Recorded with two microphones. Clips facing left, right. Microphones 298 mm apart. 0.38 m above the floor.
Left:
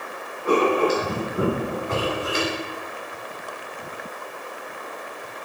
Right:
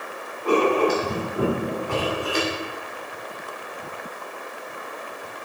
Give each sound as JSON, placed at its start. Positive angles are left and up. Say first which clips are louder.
{"t": 0.5, "sound": "writing", "louder": "even", "side_deg": 25, "distance_m": 2.5}